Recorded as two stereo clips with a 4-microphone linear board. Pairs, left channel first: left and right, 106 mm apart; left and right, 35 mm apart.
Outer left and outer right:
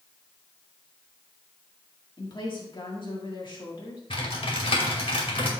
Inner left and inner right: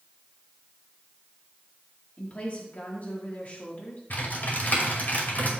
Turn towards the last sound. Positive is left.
turn(degrees=60)  # may be behind; listen again after turning